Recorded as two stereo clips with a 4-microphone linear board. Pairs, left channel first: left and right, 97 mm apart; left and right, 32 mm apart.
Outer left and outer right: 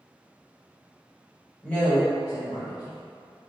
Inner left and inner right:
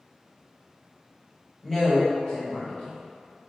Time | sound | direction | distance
1.6 | a woman speaking | 15° left (ahead or behind) | 1.2 m